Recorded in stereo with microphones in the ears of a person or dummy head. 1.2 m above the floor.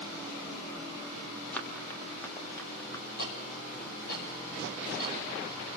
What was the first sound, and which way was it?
Running footsteps, 5° left (ahead or behind).